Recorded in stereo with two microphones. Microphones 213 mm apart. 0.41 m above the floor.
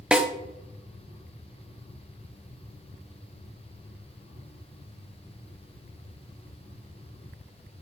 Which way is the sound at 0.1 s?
5° right (ahead or behind).